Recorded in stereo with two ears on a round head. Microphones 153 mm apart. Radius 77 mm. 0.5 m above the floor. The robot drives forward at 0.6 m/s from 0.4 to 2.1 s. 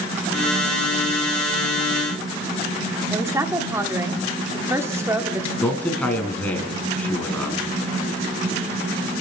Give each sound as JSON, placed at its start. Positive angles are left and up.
{"t": 3.1, "sound": "a woman speaking", "side_deg": -15, "distance_m": 1.3}
{"t": 5.6, "sound": "a man speaking", "side_deg": 10, "distance_m": 4.5}